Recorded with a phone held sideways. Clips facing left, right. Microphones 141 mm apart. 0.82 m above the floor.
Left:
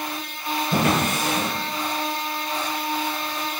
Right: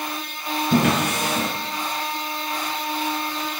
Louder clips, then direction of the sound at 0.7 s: Right 2 dB; 85° right.